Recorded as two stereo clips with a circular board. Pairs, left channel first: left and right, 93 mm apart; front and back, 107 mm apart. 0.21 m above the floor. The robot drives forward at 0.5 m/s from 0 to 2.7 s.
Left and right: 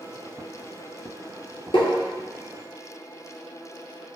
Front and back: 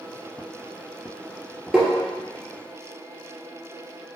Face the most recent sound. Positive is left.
turn(degrees=120)